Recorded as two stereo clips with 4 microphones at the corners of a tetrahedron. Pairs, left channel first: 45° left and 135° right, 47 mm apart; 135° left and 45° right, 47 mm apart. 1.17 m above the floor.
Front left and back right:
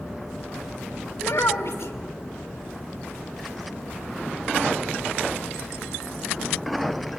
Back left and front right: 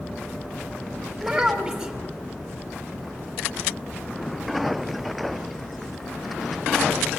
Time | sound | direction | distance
1.2 | a child speaking | 35° left | 3.5 m